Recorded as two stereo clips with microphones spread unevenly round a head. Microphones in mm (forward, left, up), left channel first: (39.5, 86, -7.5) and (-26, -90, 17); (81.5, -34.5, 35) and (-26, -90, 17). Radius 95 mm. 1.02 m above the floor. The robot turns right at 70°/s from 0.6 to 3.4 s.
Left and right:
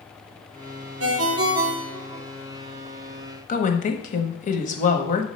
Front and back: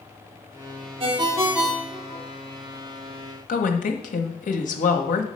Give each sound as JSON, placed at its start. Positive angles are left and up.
{"t": 1.0, "sound": "a ringtone", "azimuth_deg": -110, "distance_m": 1.1}
{"t": 3.5, "sound": "a woman speaking", "azimuth_deg": 25, "distance_m": 1.0}